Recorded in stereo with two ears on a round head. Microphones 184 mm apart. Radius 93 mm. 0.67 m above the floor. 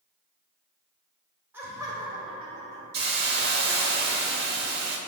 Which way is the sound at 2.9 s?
50° right (ahead or behind).